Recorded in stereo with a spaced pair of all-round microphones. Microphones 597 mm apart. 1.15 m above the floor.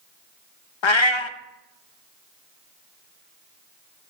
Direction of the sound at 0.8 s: 50° left (ahead or behind).